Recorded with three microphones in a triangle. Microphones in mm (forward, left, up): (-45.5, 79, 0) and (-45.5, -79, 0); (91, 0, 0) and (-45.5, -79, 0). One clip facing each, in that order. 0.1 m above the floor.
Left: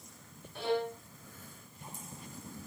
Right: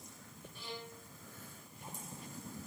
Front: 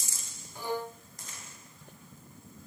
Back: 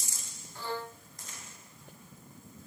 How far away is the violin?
About 0.6 m.